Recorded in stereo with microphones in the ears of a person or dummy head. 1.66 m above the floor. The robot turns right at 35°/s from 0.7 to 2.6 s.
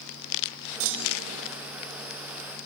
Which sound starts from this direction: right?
A clunk, at 0.8 s.